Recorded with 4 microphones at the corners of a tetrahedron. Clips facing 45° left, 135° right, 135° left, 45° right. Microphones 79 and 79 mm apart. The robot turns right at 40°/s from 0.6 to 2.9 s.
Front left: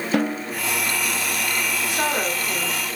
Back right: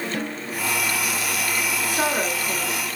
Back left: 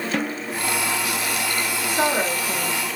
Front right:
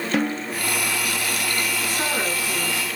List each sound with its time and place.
0.1 s a snare drum: 40° left, 0.7 m
1.9 s a woman speaking: 115° left, 2.5 m; by 3.0 s 155° left, 2.5 m